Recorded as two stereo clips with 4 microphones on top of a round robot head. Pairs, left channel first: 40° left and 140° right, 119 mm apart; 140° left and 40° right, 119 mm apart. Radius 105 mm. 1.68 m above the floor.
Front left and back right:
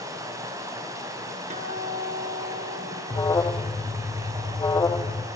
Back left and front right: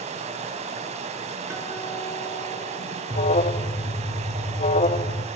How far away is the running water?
About 6 m.